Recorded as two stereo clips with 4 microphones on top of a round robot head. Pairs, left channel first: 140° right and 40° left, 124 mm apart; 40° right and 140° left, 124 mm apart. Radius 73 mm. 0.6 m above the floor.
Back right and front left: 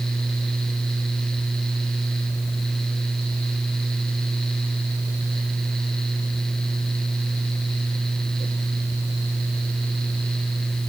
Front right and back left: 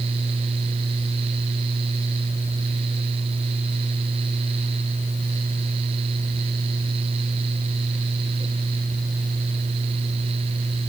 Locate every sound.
Only background noise.